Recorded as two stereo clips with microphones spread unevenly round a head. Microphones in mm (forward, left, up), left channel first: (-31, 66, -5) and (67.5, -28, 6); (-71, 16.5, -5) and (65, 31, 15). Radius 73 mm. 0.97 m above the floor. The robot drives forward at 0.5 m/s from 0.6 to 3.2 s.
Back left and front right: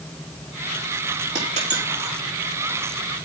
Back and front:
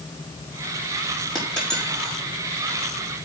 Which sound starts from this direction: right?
A dropped coin, at 1.4 s.